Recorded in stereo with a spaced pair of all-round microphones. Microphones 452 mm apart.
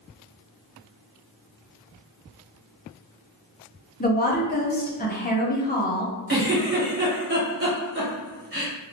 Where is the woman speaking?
20° left (ahead or behind), 0.6 m.